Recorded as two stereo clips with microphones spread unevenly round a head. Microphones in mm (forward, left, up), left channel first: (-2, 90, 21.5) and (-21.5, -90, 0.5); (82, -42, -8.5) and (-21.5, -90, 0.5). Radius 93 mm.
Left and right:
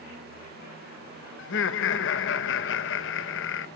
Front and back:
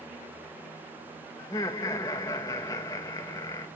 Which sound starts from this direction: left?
Laughter, at 1.4 s.